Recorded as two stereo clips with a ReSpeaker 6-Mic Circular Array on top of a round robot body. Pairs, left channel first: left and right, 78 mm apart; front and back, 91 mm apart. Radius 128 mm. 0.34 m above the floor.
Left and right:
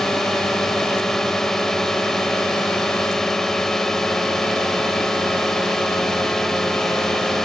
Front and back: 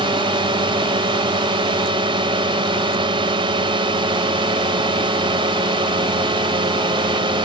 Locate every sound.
0.0 s a drone: 175° left